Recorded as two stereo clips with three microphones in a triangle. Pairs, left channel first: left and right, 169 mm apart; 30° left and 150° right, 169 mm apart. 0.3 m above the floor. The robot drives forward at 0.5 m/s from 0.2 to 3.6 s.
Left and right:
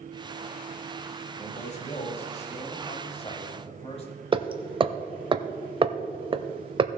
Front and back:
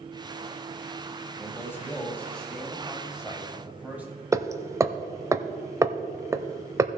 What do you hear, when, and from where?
1.4 s a man speaking: 95° left, 1.9 m; by 4.1 s 135° left, 2.5 m
4.3 s hammering: 95° right, 0.6 m